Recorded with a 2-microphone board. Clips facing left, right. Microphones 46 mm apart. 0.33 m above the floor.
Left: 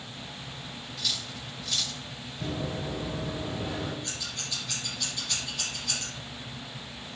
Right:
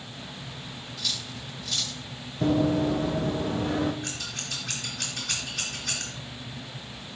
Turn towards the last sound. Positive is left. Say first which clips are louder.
# right 2 dB
turn(degrees=-75)  # may be behind; listen again after turning